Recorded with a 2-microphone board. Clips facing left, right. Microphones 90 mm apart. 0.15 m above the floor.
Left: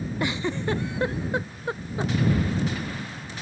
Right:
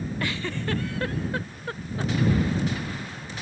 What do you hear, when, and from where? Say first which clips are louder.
0.2 s a giggle: left 5 dB; 20° left (ahead or behind)